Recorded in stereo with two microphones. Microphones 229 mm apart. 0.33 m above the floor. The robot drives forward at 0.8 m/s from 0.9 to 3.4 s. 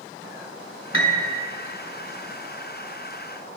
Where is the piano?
60° left (ahead or behind), 1.0 m; by 1.3 s 45° left (ahead or behind), 1.2 m.